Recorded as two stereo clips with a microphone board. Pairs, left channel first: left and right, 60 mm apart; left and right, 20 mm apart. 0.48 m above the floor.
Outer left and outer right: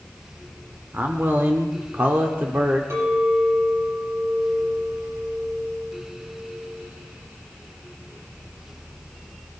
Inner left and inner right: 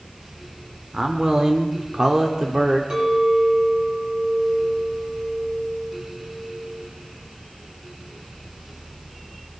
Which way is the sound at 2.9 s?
45° right (ahead or behind).